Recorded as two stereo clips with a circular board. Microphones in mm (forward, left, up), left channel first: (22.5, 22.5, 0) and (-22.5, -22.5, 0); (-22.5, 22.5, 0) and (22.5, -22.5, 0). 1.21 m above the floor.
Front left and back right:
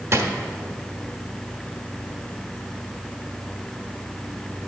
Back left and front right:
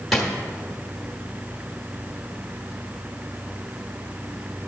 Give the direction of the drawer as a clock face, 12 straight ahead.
4 o'clock.